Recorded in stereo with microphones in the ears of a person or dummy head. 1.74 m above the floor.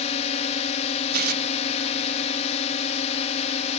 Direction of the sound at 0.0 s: 35° left (ahead or behind).